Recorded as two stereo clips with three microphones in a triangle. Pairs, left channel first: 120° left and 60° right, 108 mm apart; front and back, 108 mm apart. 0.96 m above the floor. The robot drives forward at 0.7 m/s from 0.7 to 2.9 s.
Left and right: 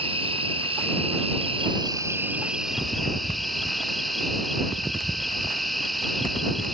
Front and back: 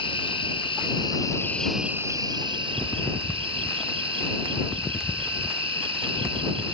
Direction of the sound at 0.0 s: 35° right.